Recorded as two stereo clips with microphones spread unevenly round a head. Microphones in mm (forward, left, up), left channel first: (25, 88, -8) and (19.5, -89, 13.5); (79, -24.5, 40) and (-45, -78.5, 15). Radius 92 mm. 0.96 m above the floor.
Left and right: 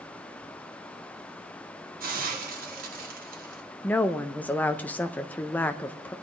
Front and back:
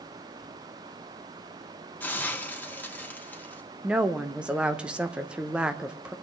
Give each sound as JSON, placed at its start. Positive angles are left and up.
{"t": 2.0, "sound": "a hiss", "azimuth_deg": -55, "distance_m": 1.6}
{"t": 3.8, "sound": "a woman speaking", "azimuth_deg": 150, "distance_m": 0.6}